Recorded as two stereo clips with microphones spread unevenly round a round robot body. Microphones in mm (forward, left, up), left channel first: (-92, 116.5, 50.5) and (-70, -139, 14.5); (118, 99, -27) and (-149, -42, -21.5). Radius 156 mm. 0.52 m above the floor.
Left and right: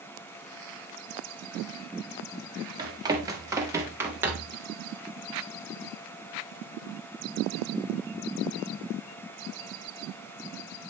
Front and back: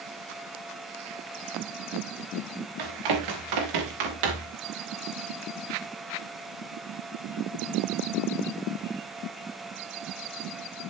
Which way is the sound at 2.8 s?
160° right.